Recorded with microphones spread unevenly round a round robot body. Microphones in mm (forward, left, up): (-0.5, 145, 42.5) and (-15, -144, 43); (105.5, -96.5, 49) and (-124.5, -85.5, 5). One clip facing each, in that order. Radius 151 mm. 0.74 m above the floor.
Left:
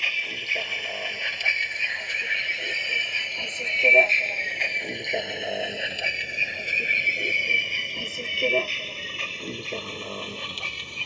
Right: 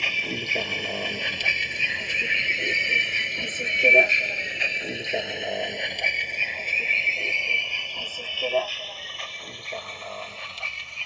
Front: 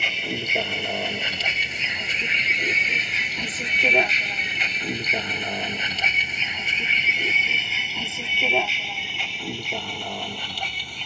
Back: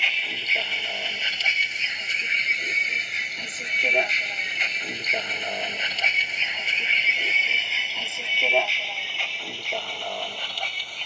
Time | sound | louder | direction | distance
0.0 | a vehicle | right 9 dB, front 10 dB | 45° right | ?